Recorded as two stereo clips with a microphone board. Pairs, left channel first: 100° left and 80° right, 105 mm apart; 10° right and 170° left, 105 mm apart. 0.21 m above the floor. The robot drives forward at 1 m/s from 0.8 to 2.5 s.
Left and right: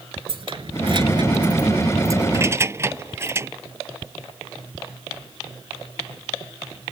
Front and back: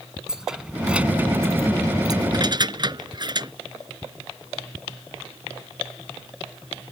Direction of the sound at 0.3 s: 105° right.